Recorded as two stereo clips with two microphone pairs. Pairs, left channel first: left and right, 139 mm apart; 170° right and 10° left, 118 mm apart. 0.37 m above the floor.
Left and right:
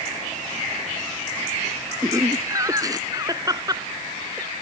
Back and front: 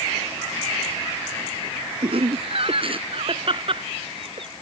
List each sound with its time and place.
2.0 s laughter: 25° right; by 4.5 s 30° right